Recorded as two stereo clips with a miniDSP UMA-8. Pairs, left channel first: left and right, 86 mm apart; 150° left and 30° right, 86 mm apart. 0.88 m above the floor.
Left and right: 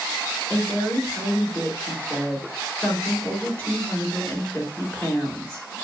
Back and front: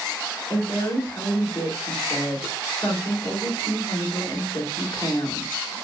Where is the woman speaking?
160° left, 2.5 m.